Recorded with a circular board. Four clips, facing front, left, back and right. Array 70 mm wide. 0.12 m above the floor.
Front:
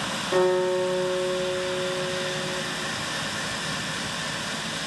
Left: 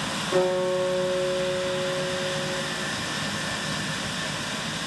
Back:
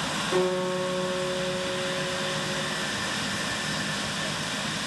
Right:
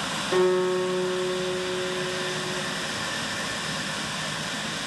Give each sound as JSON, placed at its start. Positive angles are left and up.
{"t": 0.3, "sound": "a guitar", "azimuth_deg": -80, "distance_m": 1.2}